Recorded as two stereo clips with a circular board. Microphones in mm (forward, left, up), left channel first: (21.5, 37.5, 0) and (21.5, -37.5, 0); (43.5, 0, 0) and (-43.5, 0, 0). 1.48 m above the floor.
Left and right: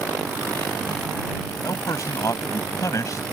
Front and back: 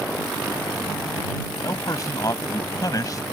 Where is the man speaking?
45° left.